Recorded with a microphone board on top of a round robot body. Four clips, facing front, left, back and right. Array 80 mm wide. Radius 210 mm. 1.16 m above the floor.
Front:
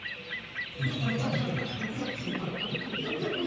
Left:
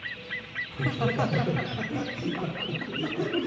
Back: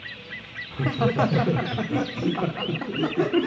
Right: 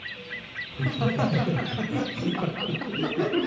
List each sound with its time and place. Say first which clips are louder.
0.7 s laughter: right 1 dB, back 9 dB; 170° left, 1.7 m; by 3.5 s 155° right, 3 m